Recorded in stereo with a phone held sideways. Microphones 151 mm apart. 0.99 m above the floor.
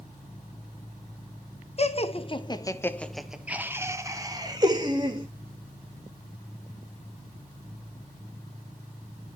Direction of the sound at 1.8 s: 45° left (ahead or behind).